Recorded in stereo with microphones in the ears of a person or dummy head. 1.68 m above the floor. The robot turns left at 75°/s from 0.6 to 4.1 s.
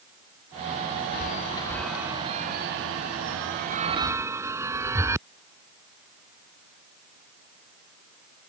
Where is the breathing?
I don't hear breathing.